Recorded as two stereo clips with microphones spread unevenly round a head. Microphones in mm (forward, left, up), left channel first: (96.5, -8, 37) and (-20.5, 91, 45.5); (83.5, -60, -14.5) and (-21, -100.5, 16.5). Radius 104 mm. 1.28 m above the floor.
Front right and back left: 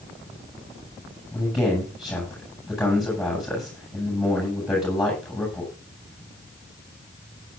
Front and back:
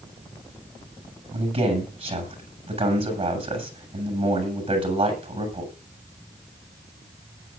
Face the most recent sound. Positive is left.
turn(degrees=-130)